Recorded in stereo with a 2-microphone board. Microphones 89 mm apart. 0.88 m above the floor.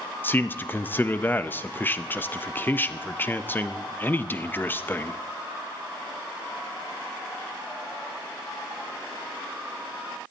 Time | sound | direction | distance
0.2 | a man speaking | 25° left (ahead or behind) | 0.5 m